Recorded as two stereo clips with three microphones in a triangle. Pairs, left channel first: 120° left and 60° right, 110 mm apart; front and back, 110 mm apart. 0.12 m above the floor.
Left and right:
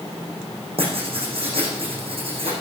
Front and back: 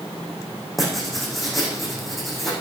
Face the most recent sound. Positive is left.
turn(degrees=-90)